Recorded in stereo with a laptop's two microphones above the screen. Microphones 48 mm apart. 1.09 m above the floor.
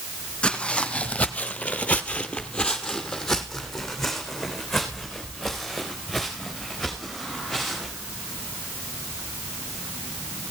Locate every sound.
0.4 s footsteps: 20° left (ahead or behind), 2.5 m; by 7.9 s 5° right (ahead or behind), 7.5 m